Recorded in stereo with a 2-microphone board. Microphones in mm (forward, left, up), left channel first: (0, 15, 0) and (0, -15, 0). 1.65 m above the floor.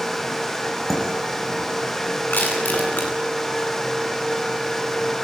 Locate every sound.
0.9 s dishes clattering: centre (ahead or behind), 8 m
2.3 s crushing: 85° left, 9 m